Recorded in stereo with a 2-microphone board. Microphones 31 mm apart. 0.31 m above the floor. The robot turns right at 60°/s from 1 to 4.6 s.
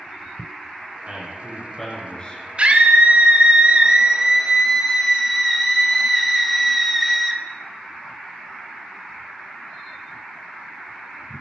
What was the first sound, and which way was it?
A man speaking, 40° right.